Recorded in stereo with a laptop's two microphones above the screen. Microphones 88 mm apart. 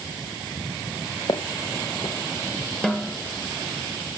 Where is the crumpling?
I don't hear crumpling.